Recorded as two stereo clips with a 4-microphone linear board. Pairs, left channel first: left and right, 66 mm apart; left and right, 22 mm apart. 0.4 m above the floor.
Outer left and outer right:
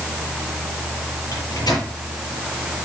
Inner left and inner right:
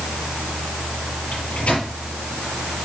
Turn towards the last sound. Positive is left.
turn(degrees=75)  # may be behind; listen again after turning